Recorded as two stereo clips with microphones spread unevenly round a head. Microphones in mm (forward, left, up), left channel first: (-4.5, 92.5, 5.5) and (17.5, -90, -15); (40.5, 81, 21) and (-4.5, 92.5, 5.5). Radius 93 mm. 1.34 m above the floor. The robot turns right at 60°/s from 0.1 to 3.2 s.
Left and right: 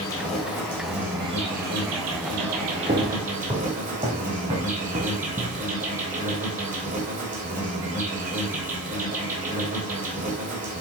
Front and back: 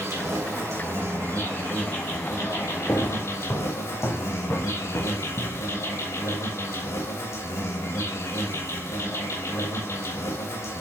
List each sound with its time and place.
0.0 s an insect: 140° left, 3.5 m; by 10.8 s 35° right, 3.5 m
2.9 s footsteps: 40° right, 2.0 m; by 5.6 s 25° right, 4.5 m